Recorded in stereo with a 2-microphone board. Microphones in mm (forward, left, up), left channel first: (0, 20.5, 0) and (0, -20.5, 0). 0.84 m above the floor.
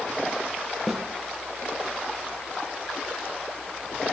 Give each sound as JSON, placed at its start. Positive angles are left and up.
{"t": 0.9, "sound": "a snare drum", "side_deg": -5, "distance_m": 0.9}